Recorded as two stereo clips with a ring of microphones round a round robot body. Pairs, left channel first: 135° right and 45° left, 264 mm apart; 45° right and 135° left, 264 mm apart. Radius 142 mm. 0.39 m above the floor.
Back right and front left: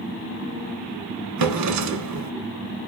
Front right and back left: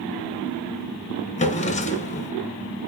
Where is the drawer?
20° left, 1.2 m.